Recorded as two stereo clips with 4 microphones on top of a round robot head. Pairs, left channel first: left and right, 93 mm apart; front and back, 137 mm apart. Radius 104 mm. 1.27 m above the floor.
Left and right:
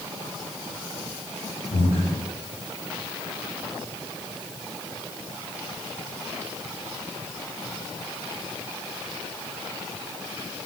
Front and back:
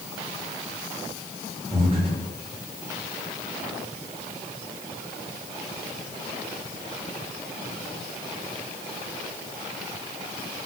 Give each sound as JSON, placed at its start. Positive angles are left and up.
{"t": 1.7, "sound": "breathing", "azimuth_deg": 130, "distance_m": 6.5}